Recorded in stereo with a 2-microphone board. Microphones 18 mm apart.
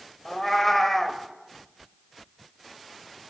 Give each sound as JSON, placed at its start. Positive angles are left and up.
{"t": 0.2, "sound": "a cat meowing", "side_deg": 25, "distance_m": 0.9}